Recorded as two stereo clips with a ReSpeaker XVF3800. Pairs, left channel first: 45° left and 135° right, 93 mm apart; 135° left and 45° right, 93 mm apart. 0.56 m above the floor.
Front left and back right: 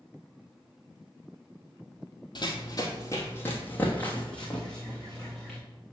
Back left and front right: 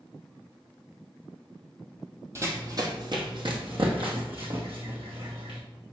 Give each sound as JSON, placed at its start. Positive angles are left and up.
{"t": 2.4, "sound": "running footsteps", "azimuth_deg": 10, "distance_m": 1.2}